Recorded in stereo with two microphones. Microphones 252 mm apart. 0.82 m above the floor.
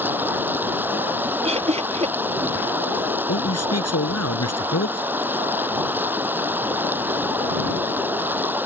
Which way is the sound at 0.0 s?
5° right (ahead or behind).